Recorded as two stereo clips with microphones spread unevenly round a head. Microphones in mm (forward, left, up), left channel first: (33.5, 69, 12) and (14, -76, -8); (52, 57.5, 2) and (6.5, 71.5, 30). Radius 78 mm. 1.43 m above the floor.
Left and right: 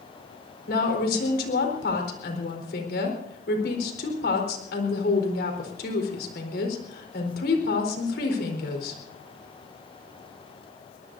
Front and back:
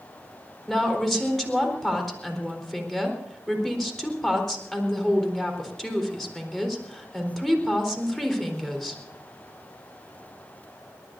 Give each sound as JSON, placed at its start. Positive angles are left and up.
{"t": 0.7, "sound": "a woman speaking", "azimuth_deg": 65, "distance_m": 4.0}